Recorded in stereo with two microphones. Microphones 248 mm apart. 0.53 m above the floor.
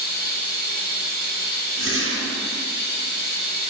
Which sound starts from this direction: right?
A whoosh, at 1.8 s.